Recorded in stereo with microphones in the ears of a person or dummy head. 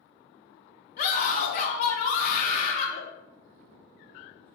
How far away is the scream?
About 1.1 m.